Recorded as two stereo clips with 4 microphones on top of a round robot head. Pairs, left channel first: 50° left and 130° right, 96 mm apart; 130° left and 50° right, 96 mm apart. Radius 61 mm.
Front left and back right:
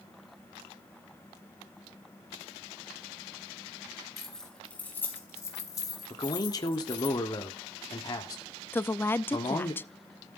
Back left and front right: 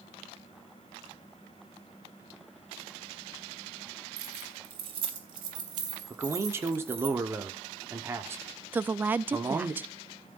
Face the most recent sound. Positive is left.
turn(degrees=0)